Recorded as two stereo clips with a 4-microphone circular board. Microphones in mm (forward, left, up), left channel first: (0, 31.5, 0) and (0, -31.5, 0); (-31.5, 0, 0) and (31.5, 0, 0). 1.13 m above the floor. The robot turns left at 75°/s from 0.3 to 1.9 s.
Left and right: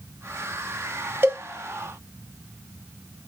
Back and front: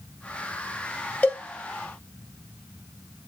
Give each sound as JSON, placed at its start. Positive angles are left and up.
{"t": 1.2, "sound": "a cowbell", "azimuth_deg": -125, "distance_m": 0.5}